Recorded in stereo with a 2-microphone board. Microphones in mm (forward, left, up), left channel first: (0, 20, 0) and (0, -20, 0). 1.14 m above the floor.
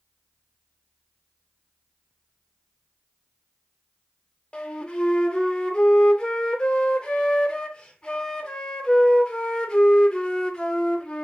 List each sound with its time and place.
4.5 s a flute: 20° left (ahead or behind), 0.6 m